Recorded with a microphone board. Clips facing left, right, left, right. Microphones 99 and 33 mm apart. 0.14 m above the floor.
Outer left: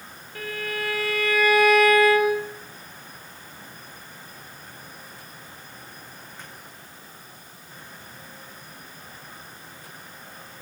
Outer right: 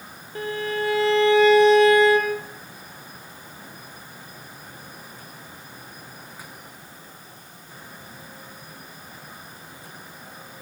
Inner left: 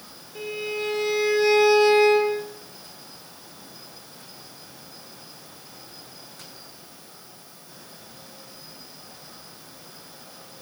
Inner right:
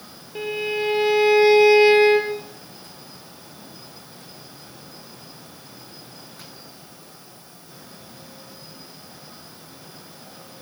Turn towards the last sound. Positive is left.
turn(degrees=-25)  # may be behind; listen again after turning